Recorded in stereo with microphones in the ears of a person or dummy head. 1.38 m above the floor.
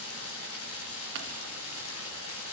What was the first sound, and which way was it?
Running water, 80° left.